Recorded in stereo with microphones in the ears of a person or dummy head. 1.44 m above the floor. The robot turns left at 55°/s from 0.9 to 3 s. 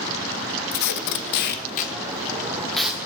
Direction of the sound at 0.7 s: 55° left (ahead or behind).